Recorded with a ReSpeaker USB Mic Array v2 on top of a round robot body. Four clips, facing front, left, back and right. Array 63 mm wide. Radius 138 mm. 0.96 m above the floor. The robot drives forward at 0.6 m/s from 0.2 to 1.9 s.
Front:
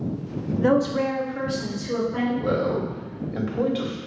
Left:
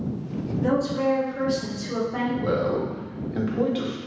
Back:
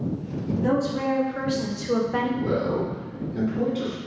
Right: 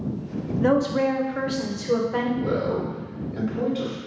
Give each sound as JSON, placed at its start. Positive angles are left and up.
{"t": 0.6, "sound": "a woman speaking", "azimuth_deg": -40, "distance_m": 0.7}
{"t": 2.4, "sound": "a man speaking", "azimuth_deg": 50, "distance_m": 1.0}